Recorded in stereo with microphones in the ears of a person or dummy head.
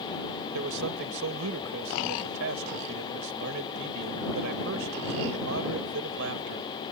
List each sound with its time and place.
0.5 s a man speaking: 80° right